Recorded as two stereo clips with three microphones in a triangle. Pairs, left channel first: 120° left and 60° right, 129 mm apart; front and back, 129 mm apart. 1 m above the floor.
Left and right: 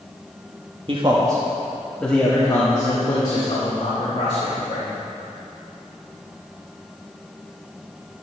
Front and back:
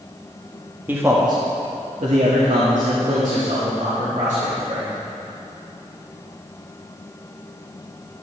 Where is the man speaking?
105° right, 1.6 m; by 4.9 s 160° left, 4 m.